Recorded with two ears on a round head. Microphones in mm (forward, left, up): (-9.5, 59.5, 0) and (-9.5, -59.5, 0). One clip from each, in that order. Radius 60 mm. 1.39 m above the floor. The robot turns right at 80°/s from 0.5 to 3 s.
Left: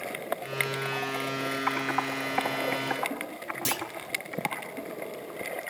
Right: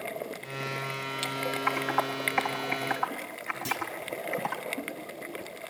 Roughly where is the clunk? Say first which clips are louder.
Left 1 dB; left.